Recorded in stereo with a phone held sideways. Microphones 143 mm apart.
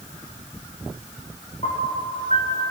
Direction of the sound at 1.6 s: 55° left (ahead or behind).